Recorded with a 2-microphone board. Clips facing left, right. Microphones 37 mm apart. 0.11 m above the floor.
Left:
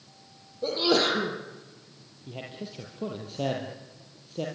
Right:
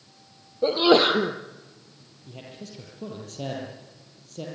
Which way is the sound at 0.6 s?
40° right (ahead or behind).